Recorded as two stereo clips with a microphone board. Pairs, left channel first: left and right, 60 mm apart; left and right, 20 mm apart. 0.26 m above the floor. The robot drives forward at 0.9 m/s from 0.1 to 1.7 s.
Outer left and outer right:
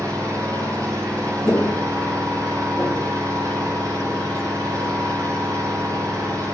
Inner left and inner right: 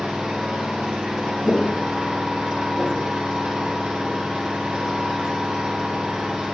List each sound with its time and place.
0.0 s an engine running: 80° right, 8 m; by 6.5 s 90° right, 7.5 m
1.4 s footsteps: 30° left (ahead or behind), 3 m; by 4.2 s 5° right (ahead or behind), 2.5 m